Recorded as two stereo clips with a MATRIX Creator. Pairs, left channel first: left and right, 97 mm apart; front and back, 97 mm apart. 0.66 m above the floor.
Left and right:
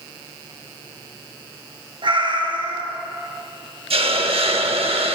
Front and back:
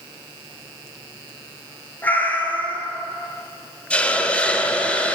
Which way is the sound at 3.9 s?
75° right.